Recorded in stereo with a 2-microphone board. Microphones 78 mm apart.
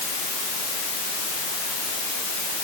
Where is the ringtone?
I don't hear a ringtone.